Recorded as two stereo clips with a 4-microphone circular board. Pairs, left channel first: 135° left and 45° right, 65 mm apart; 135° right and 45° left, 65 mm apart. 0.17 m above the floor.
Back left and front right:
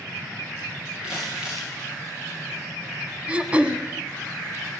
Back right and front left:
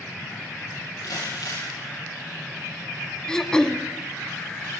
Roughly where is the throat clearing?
Right.